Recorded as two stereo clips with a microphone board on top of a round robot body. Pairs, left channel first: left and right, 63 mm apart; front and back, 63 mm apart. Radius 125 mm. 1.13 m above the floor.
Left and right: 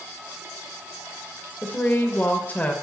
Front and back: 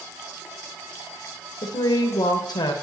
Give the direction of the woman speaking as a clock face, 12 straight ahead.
11 o'clock.